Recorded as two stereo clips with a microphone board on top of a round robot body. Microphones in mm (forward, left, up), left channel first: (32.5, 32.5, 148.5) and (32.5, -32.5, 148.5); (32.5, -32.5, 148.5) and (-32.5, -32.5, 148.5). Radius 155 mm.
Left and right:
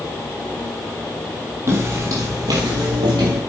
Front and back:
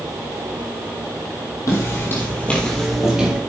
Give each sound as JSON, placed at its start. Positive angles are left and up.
{"t": 1.7, "sound": "footsteps", "azimuth_deg": -40, "distance_m": 2.5}